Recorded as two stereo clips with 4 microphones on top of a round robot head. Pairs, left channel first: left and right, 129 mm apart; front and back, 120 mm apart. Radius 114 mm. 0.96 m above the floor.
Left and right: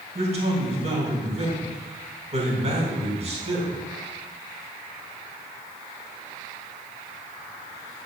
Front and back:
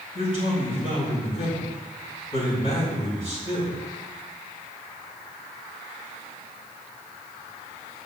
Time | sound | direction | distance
0.1 | a man speaking | 55° right | 4.5 m